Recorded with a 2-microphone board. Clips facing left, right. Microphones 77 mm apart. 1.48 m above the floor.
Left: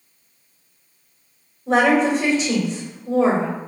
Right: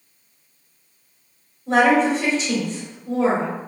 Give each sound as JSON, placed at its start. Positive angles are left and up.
{"t": 1.7, "sound": "a woman speaking", "side_deg": 15, "distance_m": 1.6}